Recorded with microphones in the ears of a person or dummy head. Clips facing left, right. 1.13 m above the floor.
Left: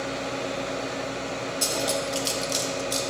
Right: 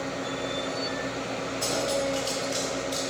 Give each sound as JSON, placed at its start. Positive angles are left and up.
{"t": 1.6, "sound": "cutlery clinking", "side_deg": 65, "distance_m": 1.0}